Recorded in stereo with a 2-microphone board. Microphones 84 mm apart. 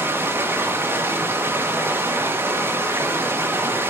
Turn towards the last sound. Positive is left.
turn(degrees=-25)  # may be behind; listen again after turning